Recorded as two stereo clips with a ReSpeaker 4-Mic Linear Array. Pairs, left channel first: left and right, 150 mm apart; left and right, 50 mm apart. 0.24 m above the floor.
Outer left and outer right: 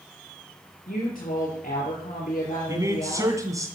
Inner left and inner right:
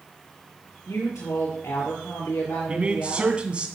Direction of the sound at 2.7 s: 20° right (ahead or behind).